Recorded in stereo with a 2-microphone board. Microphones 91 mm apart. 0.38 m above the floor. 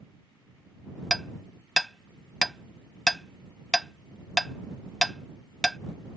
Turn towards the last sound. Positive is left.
turn(degrees=5)  # may be behind; listen again after turning